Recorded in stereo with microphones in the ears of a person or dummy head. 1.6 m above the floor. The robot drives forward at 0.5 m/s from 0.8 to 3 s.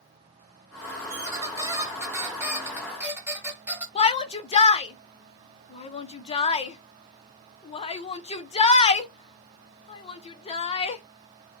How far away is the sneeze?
No sneeze in this recording.